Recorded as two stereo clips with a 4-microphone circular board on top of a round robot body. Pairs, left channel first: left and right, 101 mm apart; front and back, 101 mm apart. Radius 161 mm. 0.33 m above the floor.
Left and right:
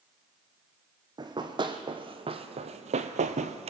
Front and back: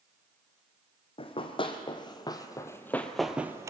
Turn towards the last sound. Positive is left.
turn(degrees=-115)